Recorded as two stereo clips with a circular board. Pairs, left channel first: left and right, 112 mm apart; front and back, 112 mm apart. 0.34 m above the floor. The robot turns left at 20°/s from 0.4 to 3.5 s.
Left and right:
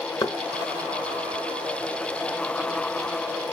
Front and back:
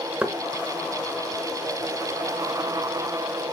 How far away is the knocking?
About 0.7 m.